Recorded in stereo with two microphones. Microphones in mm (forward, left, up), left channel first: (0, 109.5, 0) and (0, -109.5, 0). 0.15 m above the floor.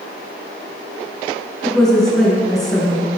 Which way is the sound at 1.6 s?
Centre (ahead or behind).